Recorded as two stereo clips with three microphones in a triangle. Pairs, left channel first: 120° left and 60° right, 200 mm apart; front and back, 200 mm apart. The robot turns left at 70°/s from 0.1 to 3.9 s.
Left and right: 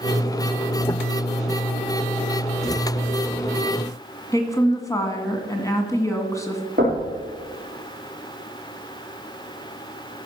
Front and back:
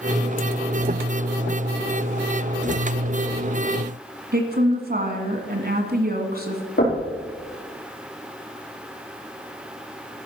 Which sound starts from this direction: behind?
A woman speaking, at 4.3 s.